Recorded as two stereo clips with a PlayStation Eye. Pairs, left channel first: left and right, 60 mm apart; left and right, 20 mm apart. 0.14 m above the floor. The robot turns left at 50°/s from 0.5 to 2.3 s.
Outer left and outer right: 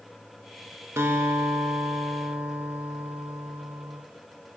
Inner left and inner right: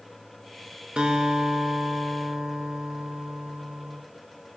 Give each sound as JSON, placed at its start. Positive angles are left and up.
{"t": 1.0, "sound": "a guitar", "azimuth_deg": -75, "distance_m": 0.5}